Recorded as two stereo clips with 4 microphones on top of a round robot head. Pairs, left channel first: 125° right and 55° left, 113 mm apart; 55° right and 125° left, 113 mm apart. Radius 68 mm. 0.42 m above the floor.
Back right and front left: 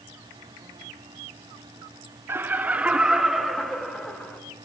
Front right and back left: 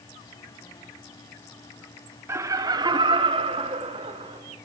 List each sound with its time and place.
2.3 s laughter: 95° left, 0.7 m; by 4.4 s 155° left, 1.4 m